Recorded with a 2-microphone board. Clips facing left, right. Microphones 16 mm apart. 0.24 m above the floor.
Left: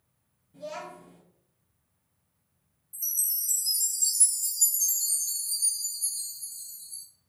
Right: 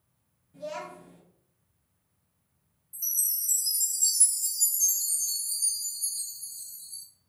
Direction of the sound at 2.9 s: 5° right (ahead or behind).